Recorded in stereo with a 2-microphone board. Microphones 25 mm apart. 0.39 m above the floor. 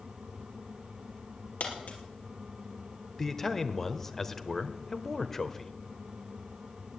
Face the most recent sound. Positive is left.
turn(degrees=20)  # may be behind; listen again after turning